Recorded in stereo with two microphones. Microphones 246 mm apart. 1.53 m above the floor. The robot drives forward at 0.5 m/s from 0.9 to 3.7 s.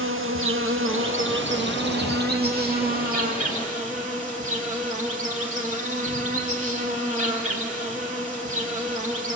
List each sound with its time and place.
0.0 s an insect: 55° right (ahead or behind), 1.6 m; by 9.4 s 30° right (ahead or behind), 2.5 m